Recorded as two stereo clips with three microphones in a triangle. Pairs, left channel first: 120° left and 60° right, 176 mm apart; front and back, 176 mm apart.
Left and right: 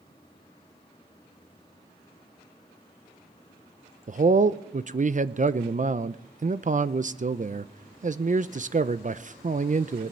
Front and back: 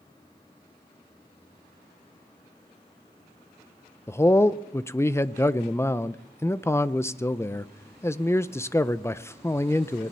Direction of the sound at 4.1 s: 70° right.